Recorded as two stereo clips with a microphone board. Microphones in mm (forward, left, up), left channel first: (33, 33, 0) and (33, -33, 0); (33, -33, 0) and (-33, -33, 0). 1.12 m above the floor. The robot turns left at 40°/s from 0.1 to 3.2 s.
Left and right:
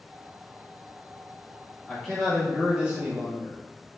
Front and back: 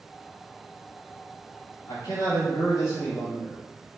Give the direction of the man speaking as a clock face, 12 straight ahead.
12 o'clock.